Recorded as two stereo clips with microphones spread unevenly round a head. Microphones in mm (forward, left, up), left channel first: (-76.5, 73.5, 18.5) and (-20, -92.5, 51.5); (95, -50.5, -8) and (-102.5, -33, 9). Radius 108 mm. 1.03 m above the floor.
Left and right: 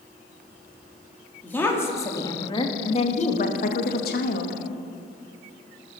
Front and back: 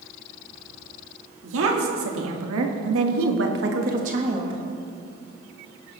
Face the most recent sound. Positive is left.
turn(degrees=100)